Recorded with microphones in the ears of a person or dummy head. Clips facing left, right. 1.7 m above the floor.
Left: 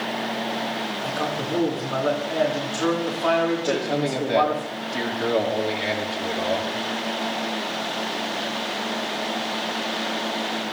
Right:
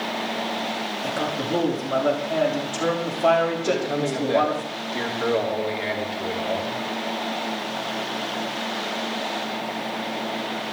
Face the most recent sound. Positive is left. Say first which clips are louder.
# even
turn(degrees=0)  # may be behind; listen again after turning